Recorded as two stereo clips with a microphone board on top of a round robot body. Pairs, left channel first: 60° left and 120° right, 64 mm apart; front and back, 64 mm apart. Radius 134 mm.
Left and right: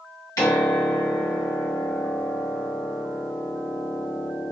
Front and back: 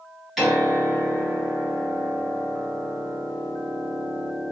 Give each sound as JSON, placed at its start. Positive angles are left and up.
{"t": 0.4, "sound": "a piano", "azimuth_deg": 90, "distance_m": 1.7}